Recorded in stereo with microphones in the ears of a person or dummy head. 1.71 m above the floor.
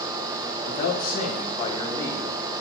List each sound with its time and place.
0.7 s a man speaking: 50° left (ahead or behind), 1.5 m; by 2.5 s 5° left (ahead or behind), 1.1 m